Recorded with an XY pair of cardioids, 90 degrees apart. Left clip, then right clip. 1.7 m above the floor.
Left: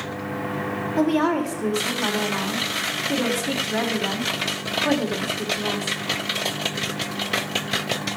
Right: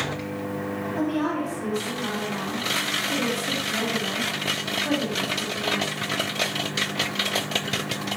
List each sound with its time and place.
1.0 s a woman speaking: 65° left, 4.5 m